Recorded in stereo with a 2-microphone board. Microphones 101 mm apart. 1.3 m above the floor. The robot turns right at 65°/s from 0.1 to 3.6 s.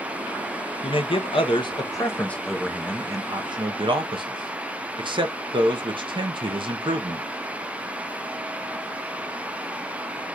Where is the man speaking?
70° left, 1.0 m; by 7.3 s 110° right, 1.0 m.